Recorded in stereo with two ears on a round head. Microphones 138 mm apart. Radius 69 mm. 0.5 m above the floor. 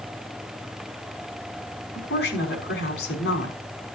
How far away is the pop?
No pop in this recording.